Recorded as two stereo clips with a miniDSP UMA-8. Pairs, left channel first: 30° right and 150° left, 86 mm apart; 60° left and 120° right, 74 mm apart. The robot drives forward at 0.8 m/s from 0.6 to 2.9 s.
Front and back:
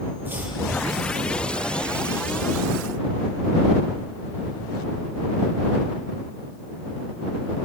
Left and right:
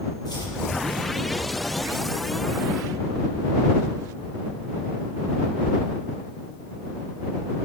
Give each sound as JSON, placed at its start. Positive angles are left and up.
{"t": 0.2, "sound": "chopping", "azimuth_deg": 80, "distance_m": 7.5}